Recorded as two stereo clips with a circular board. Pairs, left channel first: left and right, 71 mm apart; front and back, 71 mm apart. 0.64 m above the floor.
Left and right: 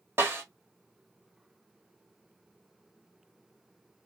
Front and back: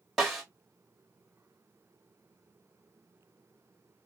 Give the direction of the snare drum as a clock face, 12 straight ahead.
3 o'clock.